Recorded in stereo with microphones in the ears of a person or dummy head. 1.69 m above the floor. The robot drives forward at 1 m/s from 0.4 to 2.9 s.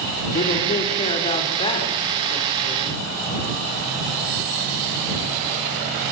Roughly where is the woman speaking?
Left.